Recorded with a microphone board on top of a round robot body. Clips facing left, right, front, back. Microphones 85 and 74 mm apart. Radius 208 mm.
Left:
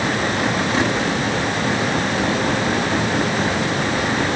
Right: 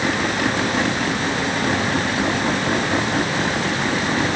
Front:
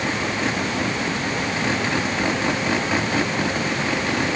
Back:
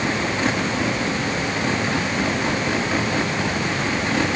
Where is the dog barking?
I don't hear a dog barking.